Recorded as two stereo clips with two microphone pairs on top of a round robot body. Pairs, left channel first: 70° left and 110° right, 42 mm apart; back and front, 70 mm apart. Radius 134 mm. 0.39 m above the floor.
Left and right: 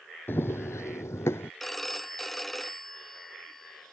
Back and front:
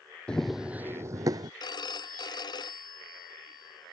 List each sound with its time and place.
0.3 s running footsteps: 105° left; by 1.5 s 30° left
1.6 s a phone ringing: 155° left